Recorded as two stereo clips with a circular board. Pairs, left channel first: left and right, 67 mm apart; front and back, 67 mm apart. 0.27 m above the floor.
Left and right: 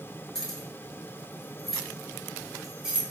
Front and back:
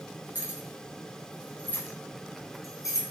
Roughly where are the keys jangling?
Behind.